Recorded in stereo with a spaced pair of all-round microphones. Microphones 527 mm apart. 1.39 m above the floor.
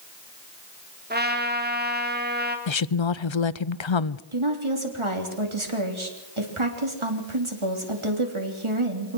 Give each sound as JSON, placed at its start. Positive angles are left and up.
{"t": 1.1, "sound": "a trumpet", "side_deg": -20, "distance_m": 3.0}
{"t": 2.7, "sound": "a woman speaking", "side_deg": 60, "distance_m": 0.7}
{"t": 4.3, "sound": "a woman speaking", "side_deg": -65, "distance_m": 3.5}